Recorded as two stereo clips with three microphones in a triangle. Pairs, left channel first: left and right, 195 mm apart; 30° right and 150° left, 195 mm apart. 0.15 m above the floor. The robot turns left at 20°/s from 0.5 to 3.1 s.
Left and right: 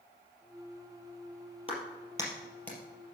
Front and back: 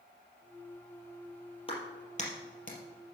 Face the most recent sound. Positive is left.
turn(degrees=0)